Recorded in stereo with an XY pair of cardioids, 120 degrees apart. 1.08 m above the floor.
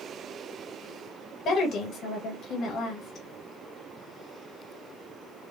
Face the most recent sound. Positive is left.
turn(degrees=65)